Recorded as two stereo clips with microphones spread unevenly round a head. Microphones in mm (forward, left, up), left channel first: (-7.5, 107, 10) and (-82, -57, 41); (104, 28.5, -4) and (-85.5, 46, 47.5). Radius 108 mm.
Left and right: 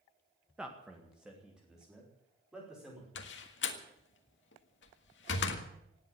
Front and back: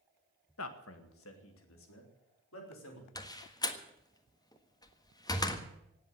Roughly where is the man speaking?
Ahead right.